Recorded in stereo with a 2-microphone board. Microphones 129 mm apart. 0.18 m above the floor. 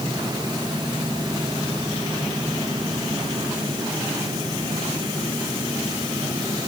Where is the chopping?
I don't hear chopping.